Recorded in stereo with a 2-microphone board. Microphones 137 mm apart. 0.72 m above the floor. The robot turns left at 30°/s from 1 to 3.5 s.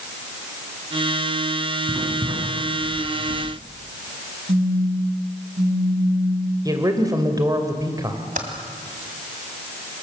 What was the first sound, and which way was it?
Writing, 25° right (ahead or behind).